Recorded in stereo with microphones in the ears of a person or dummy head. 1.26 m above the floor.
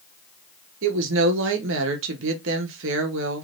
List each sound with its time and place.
0.8 s a woman speaking: 70° right (ahead or behind), 1.0 m